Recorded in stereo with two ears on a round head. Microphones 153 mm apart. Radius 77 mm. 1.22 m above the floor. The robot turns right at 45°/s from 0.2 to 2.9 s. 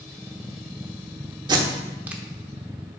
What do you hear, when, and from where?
1.5 s tape being pulled: 25° right (ahead or behind), 1.0 m; by 2.2 s 5° right (ahead or behind), 1.0 m